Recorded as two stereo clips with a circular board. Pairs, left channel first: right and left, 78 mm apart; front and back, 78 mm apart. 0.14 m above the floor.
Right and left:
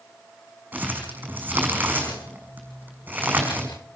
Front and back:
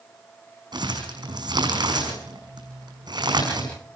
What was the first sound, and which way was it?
Crumpling, 155° left.